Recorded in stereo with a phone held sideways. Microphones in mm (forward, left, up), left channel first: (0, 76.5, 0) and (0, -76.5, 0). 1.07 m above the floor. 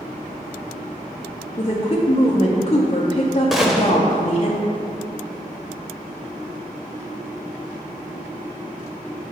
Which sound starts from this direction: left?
A woman speaking, at 1.6 s.